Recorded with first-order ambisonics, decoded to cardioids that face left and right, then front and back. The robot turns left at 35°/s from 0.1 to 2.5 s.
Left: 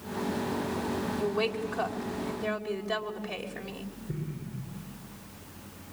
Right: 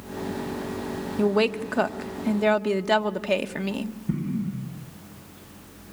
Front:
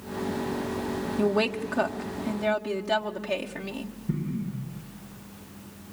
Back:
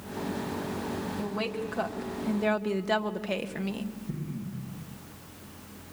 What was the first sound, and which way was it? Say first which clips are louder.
A woman speaking: right 9 dB, front 10 dB; 50° right.